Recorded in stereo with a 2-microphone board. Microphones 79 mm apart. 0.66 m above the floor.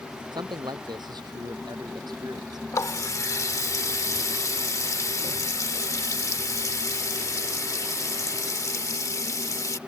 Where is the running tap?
45° left (ahead or behind).